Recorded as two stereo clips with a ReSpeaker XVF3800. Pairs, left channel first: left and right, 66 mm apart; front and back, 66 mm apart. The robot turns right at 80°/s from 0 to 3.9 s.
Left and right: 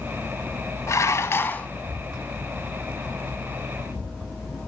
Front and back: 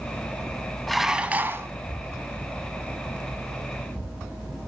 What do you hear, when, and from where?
0.9 s dishes clattering: 85° left, 1.2 m; by 1.7 s 150° left, 1.2 m